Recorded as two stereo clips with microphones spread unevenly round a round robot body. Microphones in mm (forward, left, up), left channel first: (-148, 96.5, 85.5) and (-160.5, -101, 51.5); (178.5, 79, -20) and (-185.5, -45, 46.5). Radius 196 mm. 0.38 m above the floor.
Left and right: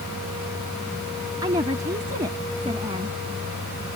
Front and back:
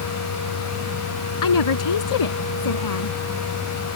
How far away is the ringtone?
I don't hear a ringtone.